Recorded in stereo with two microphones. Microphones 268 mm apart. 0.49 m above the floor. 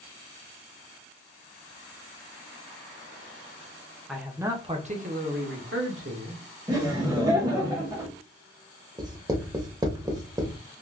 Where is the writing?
15° right (ahead or behind), 0.7 m.